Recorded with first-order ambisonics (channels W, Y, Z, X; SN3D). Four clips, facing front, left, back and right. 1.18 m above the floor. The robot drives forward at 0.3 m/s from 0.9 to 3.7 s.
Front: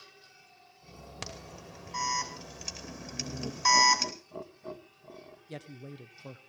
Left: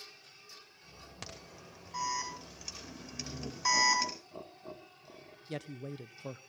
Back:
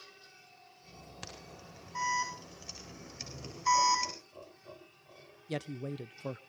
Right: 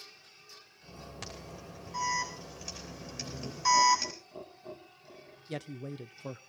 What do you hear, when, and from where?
1.2 s an alarm: 5° left, 5 m
3.1 s laughter: 10° left, 2 m
5.5 s a man speaking: 165° right, 0.6 m